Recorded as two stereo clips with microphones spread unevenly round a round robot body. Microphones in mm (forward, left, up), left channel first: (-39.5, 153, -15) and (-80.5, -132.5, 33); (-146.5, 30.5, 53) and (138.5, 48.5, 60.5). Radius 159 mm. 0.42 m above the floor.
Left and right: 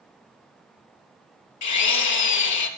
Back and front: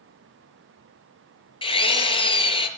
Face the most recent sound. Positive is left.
turn(degrees=110)